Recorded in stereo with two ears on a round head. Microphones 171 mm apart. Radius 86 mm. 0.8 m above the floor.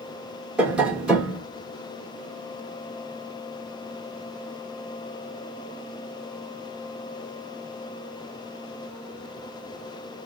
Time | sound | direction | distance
0.6 | tapping | 5° right (ahead or behind) | 1.9 m